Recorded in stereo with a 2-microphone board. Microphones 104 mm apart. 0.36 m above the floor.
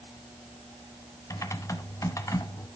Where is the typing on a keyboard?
30° left (ahead or behind), 1.3 m.